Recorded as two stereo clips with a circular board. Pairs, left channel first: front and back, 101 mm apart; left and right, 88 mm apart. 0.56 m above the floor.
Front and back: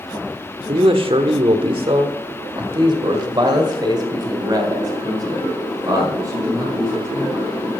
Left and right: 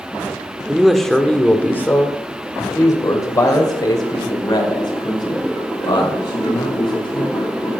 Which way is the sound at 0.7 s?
175° right.